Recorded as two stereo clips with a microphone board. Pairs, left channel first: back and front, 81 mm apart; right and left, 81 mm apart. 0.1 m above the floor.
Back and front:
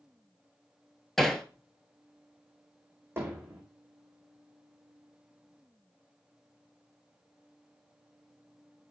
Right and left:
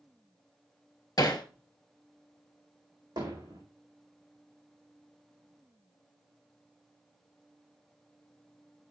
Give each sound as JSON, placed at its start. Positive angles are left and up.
{"t": 1.2, "sound": "hammering", "azimuth_deg": -95, "distance_m": 1.2}
{"t": 3.2, "sound": "hammering", "azimuth_deg": 60, "distance_m": 4.5}